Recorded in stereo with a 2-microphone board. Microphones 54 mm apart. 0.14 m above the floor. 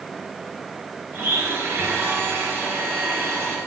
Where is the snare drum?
No snare drum in this recording.